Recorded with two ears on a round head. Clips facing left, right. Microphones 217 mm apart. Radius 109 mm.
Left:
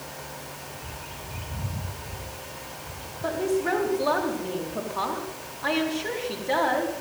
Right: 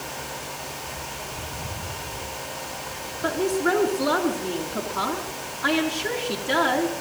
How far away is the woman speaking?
About 5.5 m.